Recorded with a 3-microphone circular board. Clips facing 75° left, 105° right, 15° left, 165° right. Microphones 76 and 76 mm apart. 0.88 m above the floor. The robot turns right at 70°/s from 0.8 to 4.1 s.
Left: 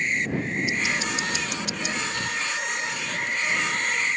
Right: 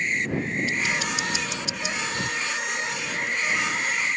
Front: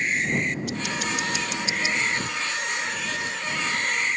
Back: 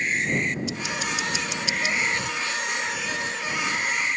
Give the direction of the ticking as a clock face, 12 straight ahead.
12 o'clock.